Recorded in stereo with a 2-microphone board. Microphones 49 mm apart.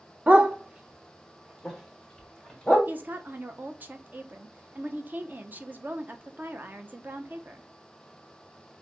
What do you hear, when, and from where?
0.3 s a dog barking: 30° right (ahead or behind), 0.9 m; by 2.8 s 15° left (ahead or behind), 1.8 m
2.9 s a woman speaking: 35° right (ahead or behind), 0.8 m